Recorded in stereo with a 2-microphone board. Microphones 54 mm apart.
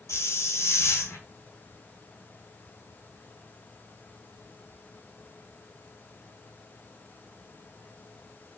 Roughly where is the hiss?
Left.